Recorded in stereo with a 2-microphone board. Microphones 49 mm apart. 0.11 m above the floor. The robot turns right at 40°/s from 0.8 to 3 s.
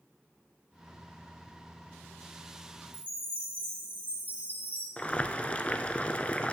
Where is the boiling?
25° left (ahead or behind), 0.6 m.